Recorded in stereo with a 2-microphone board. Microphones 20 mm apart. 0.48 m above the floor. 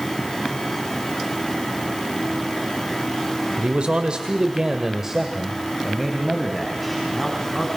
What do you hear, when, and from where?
3.6 s a man speaking: 60° right (ahead or behind), 2.0 m; by 7.7 s 5° left (ahead or behind), 4.5 m